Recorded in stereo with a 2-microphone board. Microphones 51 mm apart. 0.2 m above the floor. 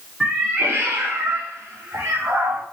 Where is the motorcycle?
I don't hear a motorcycle.